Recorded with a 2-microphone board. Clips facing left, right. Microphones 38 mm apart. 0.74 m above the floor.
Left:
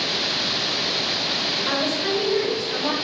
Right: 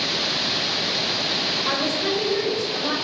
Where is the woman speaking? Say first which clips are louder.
Left 1 dB; 20° right (ahead or behind), 1.3 m; by 2.9 s 35° left (ahead or behind), 1.0 m.